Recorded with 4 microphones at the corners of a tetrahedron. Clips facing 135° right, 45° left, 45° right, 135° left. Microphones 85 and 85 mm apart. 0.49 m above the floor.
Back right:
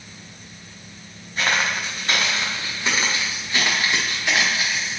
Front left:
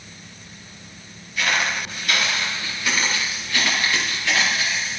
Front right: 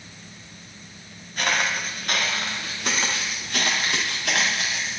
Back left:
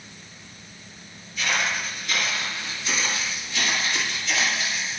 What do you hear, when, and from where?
1.4 s footsteps: 80° right, 5 m; by 5.0 s 60° right, 6.5 m